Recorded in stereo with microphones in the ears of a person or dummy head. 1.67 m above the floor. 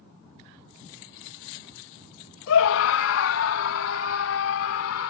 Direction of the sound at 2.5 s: 70° left (ahead or behind).